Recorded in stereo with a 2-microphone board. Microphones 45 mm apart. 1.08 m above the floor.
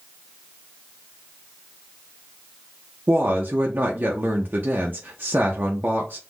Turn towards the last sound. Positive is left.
turn(degrees=-40)  # may be behind; listen again after turning